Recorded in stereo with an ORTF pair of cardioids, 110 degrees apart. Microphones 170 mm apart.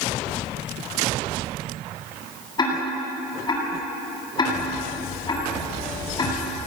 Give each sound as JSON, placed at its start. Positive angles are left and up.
{"t": 2.6, "sound": "ticking", "azimuth_deg": 25, "distance_m": 9.5}